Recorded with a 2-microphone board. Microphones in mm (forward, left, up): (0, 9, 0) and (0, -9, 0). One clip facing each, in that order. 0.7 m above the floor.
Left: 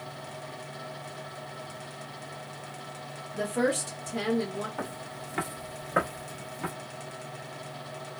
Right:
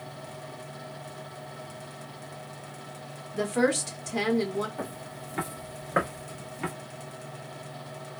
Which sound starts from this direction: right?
A woman speaking, at 3.3 s.